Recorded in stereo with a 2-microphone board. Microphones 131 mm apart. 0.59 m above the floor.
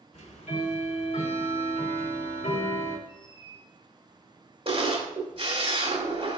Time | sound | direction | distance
0.1 | ticking | 55° left (ahead or behind) | 1.6 m
3.1 | a squeak | 40° left (ahead or behind) | 2.5 m
4.7 | a camera shutter | 50° right (ahead or behind) | 2.5 m